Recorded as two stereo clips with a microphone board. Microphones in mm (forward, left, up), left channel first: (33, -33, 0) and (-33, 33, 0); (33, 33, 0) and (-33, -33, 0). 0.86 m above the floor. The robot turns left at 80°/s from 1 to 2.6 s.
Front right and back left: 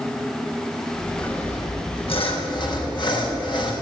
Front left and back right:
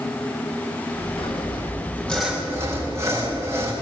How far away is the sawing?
About 4.5 m.